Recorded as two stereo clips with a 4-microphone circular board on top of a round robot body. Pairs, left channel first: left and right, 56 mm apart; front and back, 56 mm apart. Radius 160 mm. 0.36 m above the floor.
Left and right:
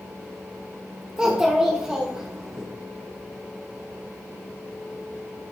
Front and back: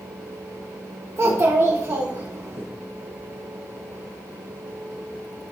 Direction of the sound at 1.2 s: 160° right.